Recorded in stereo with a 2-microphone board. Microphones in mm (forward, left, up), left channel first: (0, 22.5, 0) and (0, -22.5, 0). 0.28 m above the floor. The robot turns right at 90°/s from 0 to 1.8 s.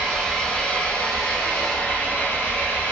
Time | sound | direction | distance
0.0 | an engine running | 25° right | 1.7 m